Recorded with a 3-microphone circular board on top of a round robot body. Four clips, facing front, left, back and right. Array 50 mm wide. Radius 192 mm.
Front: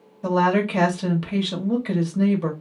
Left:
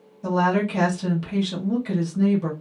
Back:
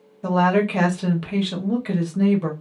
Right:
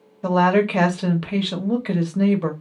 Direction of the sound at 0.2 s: 95° right.